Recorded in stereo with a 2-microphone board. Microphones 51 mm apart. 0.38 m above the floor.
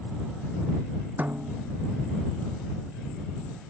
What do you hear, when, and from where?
1.2 s a snare drum: 35° right (ahead or behind)